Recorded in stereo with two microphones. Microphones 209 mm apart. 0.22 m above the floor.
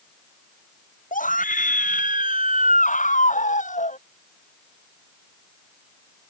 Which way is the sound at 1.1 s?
40° left (ahead or behind).